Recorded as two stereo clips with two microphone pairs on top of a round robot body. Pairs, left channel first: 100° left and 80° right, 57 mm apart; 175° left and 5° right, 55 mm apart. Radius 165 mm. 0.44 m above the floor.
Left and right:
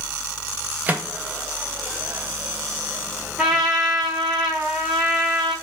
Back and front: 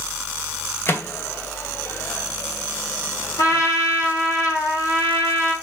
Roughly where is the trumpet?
Behind.